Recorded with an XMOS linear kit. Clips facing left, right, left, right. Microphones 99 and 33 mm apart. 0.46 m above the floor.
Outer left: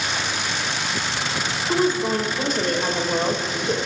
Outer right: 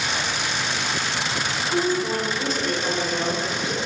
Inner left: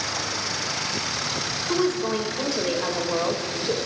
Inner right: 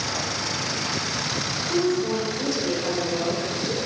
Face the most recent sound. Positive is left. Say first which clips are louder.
# outer left 3 dB, inner right 1 dB
turn(degrees=55)  # may be behind; listen again after turning